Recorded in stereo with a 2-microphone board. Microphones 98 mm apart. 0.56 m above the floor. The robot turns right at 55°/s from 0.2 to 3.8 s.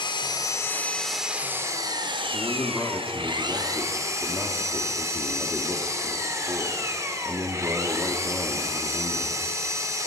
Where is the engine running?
130° left, 0.7 m; by 10.1 s 35° right, 0.7 m.